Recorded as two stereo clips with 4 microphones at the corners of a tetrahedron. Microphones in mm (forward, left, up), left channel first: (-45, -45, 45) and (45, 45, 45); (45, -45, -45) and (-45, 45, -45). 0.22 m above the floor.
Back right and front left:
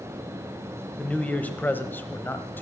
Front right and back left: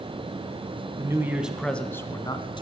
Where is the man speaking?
150° left, 1.0 m; by 2.6 s 65° right, 1.3 m.